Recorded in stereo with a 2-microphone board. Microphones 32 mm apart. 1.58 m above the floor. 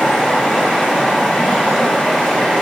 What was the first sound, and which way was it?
Running water, 20° left (ahead or behind).